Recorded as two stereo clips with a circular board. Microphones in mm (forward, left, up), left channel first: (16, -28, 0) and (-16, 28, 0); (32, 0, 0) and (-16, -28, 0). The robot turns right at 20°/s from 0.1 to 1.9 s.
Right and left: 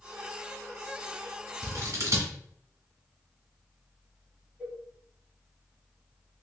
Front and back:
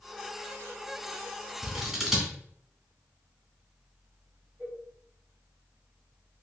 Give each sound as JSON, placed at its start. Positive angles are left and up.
{"t": 1.6, "sound": "scissors", "azimuth_deg": 120, "distance_m": 1.3}
{"t": 4.6, "sound": "a cowbell", "azimuth_deg": 180, "distance_m": 1.1}